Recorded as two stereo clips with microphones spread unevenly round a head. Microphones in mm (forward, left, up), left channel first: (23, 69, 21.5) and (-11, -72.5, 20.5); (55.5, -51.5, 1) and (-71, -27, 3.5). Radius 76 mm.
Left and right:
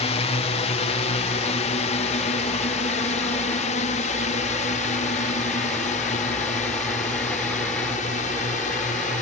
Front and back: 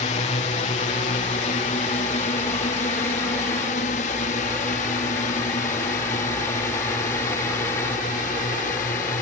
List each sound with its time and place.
0.0 s a drone: 30° left; by 9.2 s 35° left